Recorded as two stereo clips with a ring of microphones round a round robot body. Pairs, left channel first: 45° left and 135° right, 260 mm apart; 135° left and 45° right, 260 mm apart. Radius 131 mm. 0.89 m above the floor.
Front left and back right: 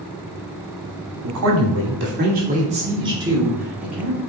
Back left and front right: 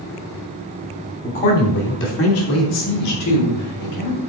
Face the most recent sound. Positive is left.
turn(degrees=135)